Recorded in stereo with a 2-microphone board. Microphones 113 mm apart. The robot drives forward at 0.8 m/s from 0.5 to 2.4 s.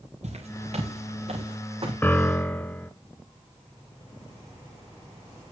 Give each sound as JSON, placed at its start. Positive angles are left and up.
{"t": 0.2, "sound": "footsteps", "side_deg": -80, "distance_m": 5.5}
{"t": 2.0, "sound": "a piano", "side_deg": 20, "distance_m": 0.6}